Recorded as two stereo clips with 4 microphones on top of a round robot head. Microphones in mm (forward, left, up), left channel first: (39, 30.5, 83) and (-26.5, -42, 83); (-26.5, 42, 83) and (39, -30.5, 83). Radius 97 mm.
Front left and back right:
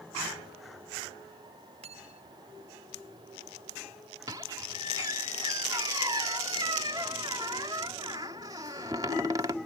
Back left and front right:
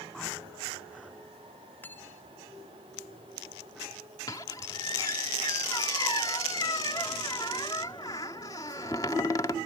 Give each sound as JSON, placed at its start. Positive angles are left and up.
{"t": 1.8, "sound": "cutlery clinking", "azimuth_deg": -155}
{"t": 4.3, "sound": "a squeak", "azimuth_deg": 180}